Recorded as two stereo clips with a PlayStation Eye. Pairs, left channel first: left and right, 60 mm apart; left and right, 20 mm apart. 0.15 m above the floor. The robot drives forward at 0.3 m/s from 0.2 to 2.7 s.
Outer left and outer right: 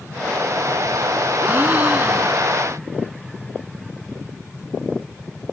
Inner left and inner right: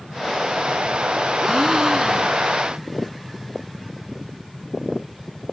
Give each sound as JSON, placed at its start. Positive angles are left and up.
{"t": 1.4, "sound": "a gasp", "side_deg": -25, "distance_m": 1.2}